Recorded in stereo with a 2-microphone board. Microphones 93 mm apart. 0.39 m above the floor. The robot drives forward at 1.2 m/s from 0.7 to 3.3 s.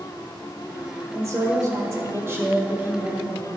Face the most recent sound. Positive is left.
turn(degrees=-20)  # may be behind; listen again after turning